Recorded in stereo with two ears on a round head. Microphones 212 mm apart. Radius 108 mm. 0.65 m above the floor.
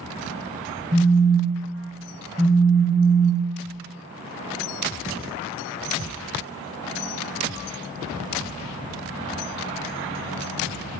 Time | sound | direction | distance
0.9 | a phone buzzing | 25° right (ahead or behind) | 0.6 m